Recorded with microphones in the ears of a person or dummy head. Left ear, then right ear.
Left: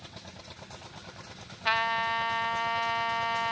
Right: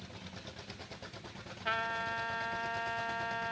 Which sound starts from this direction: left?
A trumpet, at 1.6 s.